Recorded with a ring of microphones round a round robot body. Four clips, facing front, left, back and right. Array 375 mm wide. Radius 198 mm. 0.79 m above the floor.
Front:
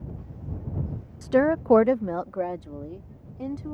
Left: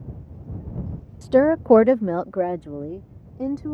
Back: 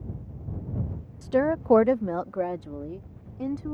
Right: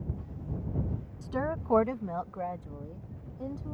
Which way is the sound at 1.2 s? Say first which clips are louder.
Left 16 dB, front 3 dB; 65° left.